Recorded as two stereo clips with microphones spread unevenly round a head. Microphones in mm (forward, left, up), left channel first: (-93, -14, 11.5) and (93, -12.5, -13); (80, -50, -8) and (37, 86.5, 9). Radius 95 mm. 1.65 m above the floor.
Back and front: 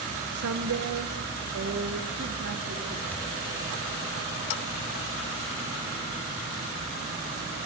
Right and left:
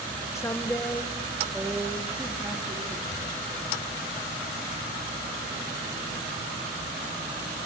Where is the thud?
100° right, 6 m.